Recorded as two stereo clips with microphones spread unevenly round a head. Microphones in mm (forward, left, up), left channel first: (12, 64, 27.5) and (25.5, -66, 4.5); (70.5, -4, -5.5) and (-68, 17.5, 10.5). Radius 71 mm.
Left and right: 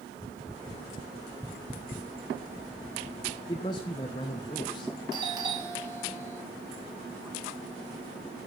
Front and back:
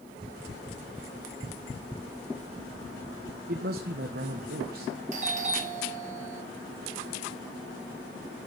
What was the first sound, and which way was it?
A man speaking, 155° left.